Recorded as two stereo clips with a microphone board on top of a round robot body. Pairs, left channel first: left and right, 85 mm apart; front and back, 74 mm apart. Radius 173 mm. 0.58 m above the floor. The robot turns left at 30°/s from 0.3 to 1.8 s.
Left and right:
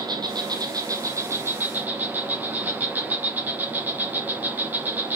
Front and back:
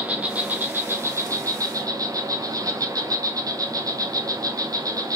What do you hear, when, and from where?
0.0 s an insect: 110° right, 1.0 m; by 5.2 s 155° right, 1.0 m